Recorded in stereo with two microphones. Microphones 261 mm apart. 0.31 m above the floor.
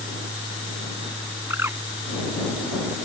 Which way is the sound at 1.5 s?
10° right (ahead or behind).